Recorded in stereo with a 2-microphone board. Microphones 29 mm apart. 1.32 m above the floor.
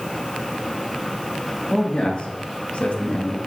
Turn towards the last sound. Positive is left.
turn(degrees=60)  # may be behind; listen again after turning